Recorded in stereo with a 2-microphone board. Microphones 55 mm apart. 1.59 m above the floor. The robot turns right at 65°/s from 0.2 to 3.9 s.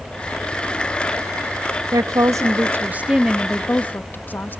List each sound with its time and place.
1.9 s a woman speaking: 100° right, 0.6 m; by 4.6 s 30° left, 0.6 m